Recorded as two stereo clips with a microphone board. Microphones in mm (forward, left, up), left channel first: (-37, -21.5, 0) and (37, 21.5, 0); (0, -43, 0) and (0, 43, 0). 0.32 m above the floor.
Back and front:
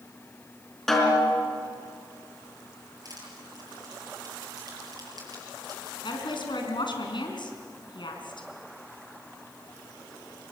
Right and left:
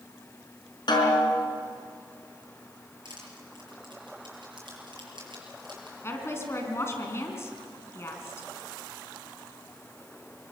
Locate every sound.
0.9 s a snare drum: 65° right, 4.5 m
3.0 s crushing: 70° left, 7 m
6.0 s a woman speaking: 145° right, 4 m